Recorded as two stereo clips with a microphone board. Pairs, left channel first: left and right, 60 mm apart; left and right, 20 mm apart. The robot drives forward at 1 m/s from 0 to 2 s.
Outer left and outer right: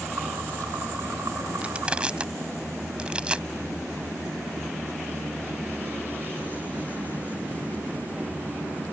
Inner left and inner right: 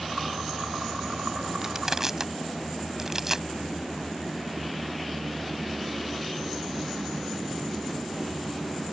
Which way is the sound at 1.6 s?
20° right (ahead or behind).